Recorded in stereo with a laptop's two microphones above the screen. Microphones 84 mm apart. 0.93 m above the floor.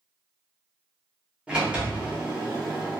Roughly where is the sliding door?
Centre.